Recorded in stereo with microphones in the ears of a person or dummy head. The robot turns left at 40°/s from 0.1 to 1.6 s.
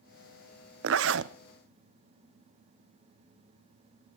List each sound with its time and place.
0.8 s a zipper: 80° right, 0.8 m; by 1.3 s 75° right (ahead or behind), 0.8 m